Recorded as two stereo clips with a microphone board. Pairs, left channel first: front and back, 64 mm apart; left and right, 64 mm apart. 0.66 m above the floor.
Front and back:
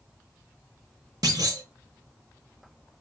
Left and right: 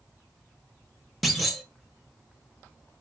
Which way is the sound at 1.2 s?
Straight behind.